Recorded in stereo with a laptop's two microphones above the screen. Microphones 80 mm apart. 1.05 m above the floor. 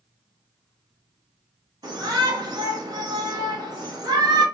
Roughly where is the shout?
Right.